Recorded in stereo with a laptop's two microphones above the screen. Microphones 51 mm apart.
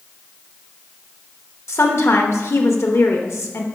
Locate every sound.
1.7 s a woman speaking: 60° left (ahead or behind), 1.0 m